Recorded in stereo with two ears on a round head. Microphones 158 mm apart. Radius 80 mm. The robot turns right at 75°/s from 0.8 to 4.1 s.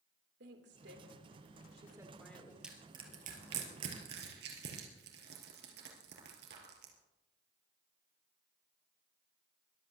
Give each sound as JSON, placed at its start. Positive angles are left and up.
{"t": 0.4, "sound": "a woman speaking", "side_deg": -70, "distance_m": 3.0}
{"t": 2.6, "sound": "crushing", "side_deg": -5, "distance_m": 4.0}